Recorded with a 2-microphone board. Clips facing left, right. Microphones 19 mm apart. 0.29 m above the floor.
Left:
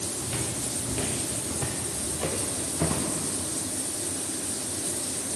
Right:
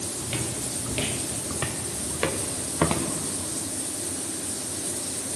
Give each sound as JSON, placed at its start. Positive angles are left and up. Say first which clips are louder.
{"t": 0.2, "sound": "footsteps", "louder": "right 2 dB", "side_deg": -30, "distance_m": 3.0}